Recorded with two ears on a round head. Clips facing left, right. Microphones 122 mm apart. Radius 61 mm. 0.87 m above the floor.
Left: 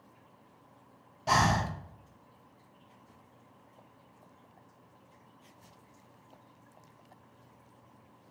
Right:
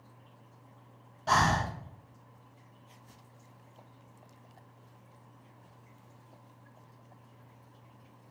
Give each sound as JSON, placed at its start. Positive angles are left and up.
{"t": 1.3, "sound": "breathing", "side_deg": 15, "distance_m": 0.8}